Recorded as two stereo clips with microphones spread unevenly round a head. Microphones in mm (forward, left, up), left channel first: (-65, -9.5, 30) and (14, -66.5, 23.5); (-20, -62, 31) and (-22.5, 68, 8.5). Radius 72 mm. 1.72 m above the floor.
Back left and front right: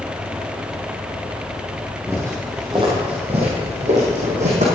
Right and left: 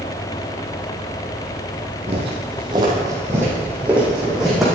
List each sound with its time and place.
2.1 s footsteps: 40° left, 3 m; by 4.7 s straight ahead, 5 m